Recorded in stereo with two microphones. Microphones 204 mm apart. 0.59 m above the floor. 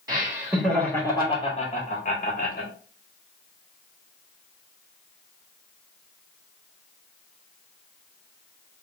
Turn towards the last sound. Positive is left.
turn(degrees=50)  # may be behind; listen again after turning